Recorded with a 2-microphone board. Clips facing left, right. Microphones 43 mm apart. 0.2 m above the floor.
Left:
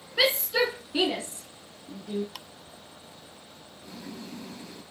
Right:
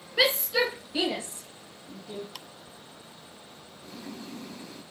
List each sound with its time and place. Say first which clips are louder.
0.2 s a shout: even; centre (ahead or behind), 2.5 m; by 2.2 s 50° left (ahead or behind), 2.5 m
2.4 s ticking: left 1 dB; 5° left (ahead or behind), 0.7 m
3.8 s boiling: even; 5° left (ahead or behind), 3.5 m